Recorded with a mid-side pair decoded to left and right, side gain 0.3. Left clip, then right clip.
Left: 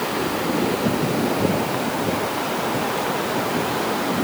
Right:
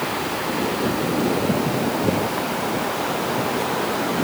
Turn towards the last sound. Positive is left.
No sound to turn to.